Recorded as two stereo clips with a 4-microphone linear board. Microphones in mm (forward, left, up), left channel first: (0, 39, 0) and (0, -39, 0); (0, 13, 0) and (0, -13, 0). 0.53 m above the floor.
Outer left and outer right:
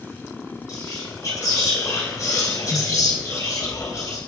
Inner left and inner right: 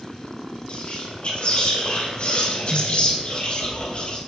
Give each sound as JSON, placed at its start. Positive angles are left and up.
{"t": 0.7, "sound": "whispering", "side_deg": 50, "distance_m": 2.5}